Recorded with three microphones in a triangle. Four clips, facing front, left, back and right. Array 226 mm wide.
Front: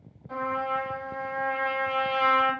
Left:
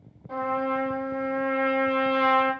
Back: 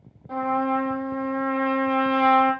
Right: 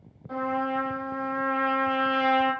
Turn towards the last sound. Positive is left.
turn(degrees=-175)